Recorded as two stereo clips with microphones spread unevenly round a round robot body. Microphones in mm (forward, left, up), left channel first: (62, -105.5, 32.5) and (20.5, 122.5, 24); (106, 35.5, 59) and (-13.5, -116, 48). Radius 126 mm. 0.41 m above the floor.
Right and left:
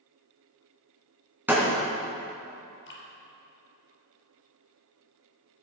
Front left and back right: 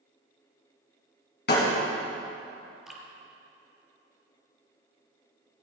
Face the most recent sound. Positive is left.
turn(degrees=-40)